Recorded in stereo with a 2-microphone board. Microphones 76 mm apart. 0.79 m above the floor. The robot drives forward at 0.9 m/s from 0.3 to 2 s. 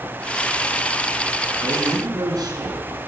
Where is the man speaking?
55° right (ahead or behind), 8.5 m.